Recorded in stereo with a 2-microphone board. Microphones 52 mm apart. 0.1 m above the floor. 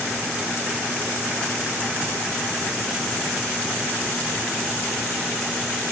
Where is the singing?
I don't hear singing.